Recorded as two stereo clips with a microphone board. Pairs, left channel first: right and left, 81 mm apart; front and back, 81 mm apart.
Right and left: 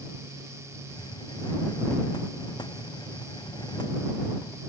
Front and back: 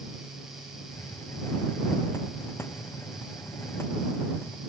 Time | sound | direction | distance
0.9 | a hiss | 60° right | ?